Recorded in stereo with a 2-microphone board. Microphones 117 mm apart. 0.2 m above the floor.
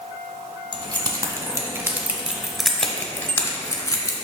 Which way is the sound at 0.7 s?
45° right (ahead or behind).